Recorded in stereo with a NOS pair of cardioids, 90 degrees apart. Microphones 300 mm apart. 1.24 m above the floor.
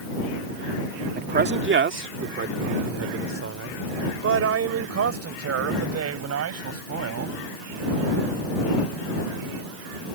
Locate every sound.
1.1 s a man speaking: 30° right; by 7.4 s 55° right